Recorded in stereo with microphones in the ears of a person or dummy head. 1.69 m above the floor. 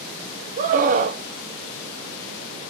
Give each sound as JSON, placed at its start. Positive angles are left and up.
{"t": 0.6, "sound": "a scream", "side_deg": -40, "distance_m": 0.9}